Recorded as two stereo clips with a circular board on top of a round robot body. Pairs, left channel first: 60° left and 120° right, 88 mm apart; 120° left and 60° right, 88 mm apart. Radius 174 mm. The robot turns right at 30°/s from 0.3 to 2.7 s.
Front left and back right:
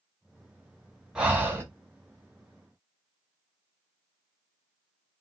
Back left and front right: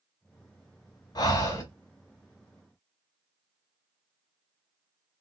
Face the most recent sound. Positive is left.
turn(degrees=-155)